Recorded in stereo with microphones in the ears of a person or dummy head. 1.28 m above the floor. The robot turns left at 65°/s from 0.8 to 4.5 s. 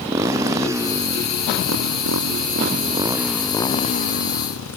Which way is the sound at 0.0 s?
15° right.